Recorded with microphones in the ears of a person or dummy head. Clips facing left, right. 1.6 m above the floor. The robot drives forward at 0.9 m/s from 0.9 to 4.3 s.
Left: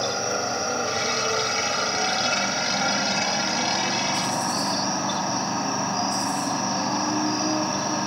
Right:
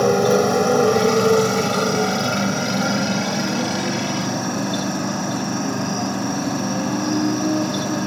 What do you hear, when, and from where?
0.0 s a motorcycle: 65° right (ahead or behind); by 8.1 s 40° right (ahead or behind)